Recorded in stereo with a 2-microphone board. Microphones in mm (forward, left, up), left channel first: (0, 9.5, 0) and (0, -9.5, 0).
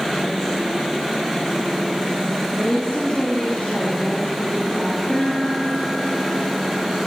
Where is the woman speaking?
70° left (ahead or behind), 4.5 m; by 5.0 s 65° left (ahead or behind), 5.5 m.